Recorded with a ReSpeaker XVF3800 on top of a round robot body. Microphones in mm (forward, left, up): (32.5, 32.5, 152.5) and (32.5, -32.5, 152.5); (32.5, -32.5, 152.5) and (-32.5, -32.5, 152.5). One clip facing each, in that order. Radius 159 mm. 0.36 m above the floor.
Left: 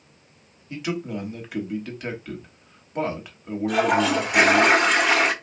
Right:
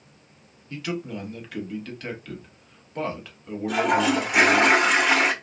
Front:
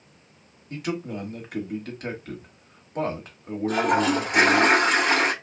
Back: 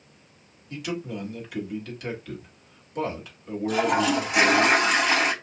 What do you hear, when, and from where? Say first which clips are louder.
0.7 s a man speaking: left 2 dB, front 2 dB; 20° left, 1.4 m
3.7 s a toilet flushing: left 1 dB, front 1 dB; 5° right, 1.4 m